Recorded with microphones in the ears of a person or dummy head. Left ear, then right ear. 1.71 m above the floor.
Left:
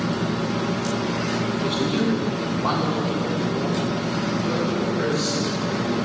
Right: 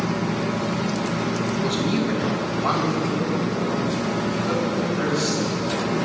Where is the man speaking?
5° left (ahead or behind), 1.4 m; by 6.0 s 20° left (ahead or behind), 4.5 m.